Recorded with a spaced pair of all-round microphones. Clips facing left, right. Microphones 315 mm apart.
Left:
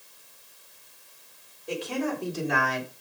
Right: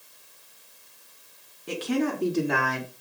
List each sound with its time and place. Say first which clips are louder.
1.7 s a woman speaking: right 4 dB; 85° right, 3.5 m; by 2.9 s 55° right (ahead or behind), 3.5 m